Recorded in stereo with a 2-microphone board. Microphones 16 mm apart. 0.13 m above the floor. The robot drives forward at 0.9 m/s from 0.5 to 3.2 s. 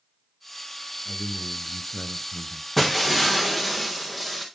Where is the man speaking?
15° left (ahead or behind), 2.5 m; by 2.7 s 25° left (ahead or behind), 1.5 m.